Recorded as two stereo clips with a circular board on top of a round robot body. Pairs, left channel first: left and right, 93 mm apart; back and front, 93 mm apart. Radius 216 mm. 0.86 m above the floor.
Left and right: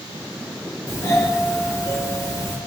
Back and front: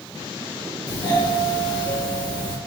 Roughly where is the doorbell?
Behind left.